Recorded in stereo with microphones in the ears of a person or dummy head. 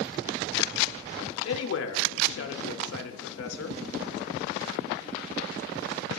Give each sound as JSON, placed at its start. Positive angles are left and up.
{"t": 1.4, "sound": "a man speaking", "side_deg": 70, "distance_m": 0.6}